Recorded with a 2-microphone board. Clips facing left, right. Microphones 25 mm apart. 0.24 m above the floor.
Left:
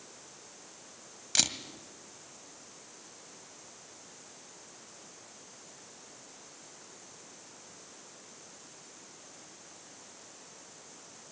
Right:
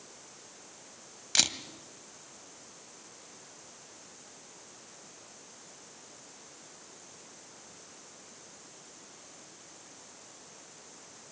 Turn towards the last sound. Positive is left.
turn(degrees=-10)  # may be behind; listen again after turning